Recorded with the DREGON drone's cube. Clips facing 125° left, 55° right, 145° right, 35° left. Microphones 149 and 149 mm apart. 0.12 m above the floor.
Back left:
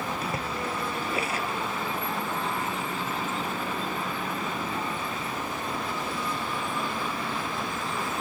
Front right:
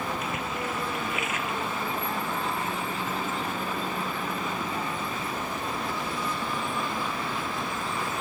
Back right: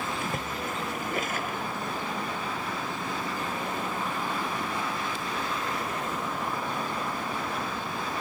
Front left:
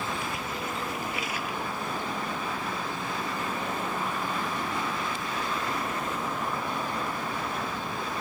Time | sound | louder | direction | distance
0.2 | a splash | even, back right 1 dB | 175° left | 1.1 m